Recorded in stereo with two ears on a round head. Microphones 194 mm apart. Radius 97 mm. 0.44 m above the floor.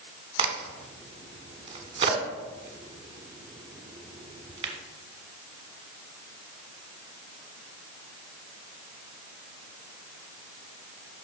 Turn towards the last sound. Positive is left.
turn(degrees=-25)  # may be behind; listen again after turning